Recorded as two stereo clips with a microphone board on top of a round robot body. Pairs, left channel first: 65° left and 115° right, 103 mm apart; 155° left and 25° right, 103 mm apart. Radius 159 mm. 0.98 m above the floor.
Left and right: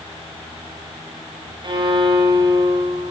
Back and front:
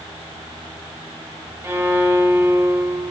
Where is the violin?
85° right, 1.2 m.